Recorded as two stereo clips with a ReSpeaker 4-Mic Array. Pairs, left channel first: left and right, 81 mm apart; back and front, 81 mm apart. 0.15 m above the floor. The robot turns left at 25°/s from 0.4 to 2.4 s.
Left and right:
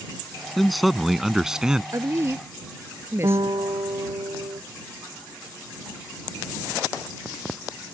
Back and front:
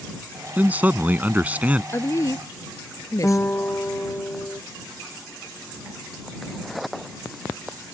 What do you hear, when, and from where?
0.6 s a man speaking: 5° left; by 1.8 s 25° right
1.9 s a woman speaking: 130° right; by 3.5 s 140° right
3.2 s a guitar: 115° right